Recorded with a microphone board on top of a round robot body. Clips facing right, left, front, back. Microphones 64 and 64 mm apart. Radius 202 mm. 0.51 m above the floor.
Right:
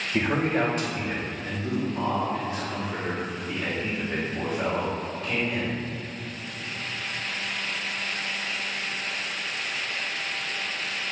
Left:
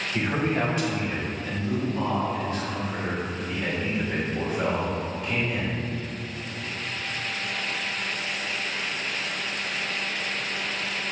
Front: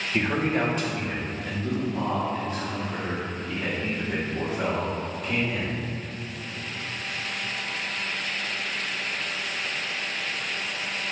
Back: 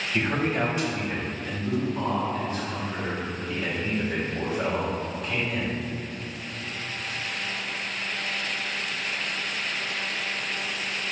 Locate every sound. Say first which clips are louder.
0.1 s a man speaking: right 2 dB, front 1 dB; 60° right, 2.5 m; by 5.8 s 10° left, 7 m